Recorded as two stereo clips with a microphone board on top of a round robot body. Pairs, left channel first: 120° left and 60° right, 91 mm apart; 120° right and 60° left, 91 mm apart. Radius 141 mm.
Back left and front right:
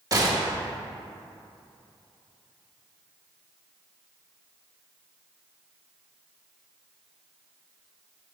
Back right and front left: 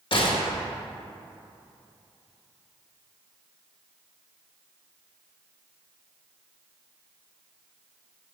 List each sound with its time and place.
0.1 s a gunshot: 105° right, 1.8 m